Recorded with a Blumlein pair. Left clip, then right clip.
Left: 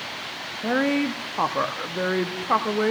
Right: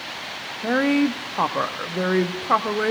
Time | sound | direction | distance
0.6 | a woman speaking | 5° right | 0.8 m